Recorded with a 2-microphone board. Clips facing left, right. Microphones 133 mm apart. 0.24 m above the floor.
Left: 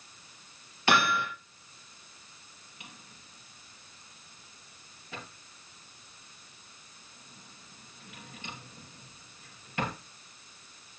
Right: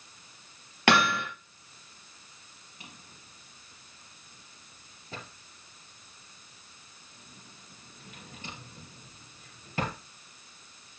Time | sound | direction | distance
0.9 | hammering | 70° right (ahead or behind) | 4 m
2.8 | a drawer | 35° right (ahead or behind) | 3 m